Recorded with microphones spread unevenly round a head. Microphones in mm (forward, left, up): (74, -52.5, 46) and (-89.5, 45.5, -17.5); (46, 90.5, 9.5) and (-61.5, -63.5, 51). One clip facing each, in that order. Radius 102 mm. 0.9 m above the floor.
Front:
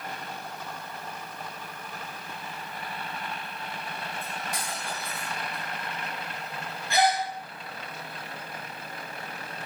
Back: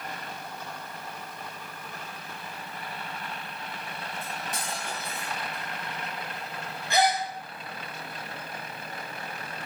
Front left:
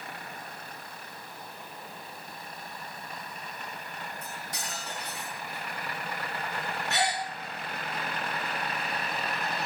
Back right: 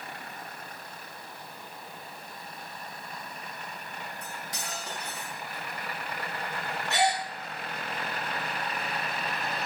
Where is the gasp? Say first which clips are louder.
Even, back right 4 dB; 140° right, 6.5 m.